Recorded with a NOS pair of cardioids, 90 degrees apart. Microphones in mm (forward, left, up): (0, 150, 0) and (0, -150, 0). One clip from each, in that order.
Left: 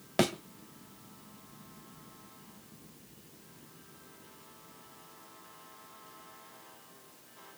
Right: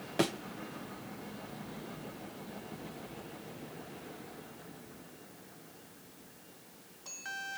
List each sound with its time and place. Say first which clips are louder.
0.2 s a thud: left 3 dB; 40° left, 2 m